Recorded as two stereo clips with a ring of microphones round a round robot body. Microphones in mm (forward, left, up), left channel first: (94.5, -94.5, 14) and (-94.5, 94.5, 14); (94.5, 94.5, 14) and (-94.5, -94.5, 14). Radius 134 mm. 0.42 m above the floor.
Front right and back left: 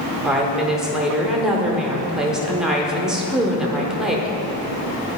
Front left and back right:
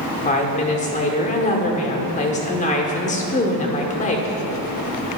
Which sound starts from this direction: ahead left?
A woman speaking, at 0.2 s.